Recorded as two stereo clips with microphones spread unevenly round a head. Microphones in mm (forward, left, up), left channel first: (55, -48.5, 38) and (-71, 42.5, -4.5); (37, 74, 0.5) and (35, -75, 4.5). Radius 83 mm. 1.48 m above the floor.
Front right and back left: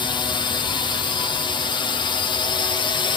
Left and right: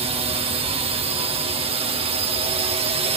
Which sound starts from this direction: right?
A drone, at 0.0 s.